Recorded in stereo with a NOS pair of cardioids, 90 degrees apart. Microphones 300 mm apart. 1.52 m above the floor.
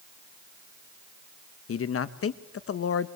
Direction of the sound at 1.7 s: 50° left.